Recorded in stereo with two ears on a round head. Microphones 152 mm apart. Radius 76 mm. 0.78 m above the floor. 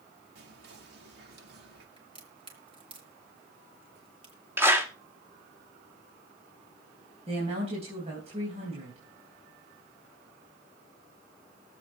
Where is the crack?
30° right (ahead or behind), 3 m.